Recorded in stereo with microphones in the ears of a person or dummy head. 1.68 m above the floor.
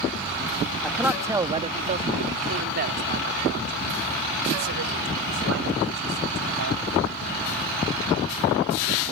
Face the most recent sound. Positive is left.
turn(degrees=-75)  # may be behind; listen again after turning